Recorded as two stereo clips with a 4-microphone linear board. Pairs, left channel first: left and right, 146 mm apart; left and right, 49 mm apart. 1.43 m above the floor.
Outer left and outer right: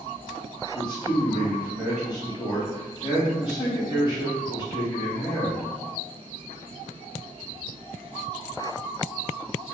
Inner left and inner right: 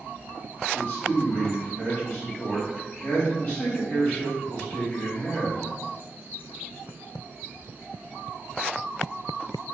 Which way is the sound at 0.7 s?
30° left (ahead or behind).